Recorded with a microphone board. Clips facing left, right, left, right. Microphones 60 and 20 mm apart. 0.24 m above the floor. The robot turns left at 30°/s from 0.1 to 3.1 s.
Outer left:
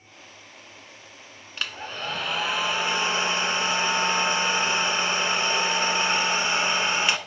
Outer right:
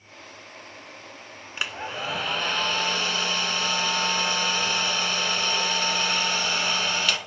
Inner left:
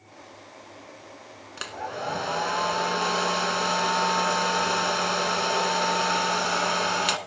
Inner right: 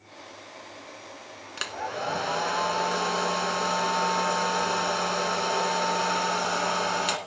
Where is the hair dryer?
160° right, 0.6 m; by 7.2 s 155° left, 0.6 m.